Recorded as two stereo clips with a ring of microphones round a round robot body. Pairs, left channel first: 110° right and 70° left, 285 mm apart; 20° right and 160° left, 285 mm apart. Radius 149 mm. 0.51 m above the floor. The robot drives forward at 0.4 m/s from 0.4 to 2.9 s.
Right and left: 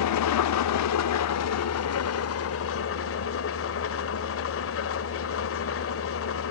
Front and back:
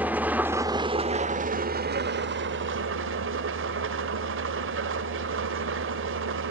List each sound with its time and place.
0.0 s an engine running: 120° right, 0.8 m; by 6.5 s 155° right, 1.5 m